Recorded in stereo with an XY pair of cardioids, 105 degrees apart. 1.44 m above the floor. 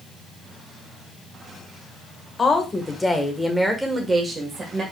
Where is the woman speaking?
30° left, 1.6 m; by 4.8 s 40° right, 1.7 m.